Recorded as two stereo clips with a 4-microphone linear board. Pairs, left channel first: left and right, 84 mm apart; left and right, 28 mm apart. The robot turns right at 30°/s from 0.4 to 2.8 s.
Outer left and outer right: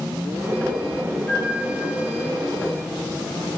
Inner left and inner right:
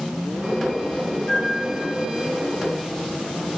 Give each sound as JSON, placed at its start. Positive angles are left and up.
{"t": 1.3, "sound": "a flute", "side_deg": 25, "distance_m": 3.0}